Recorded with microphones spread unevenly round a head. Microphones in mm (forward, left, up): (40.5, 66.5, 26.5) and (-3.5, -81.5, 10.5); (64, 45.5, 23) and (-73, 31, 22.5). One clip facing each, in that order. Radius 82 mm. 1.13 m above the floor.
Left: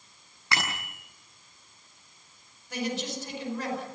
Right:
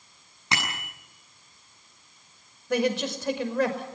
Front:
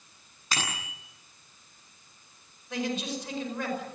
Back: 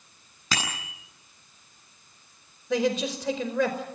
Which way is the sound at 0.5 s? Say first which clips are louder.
Even, back 2 dB; straight behind.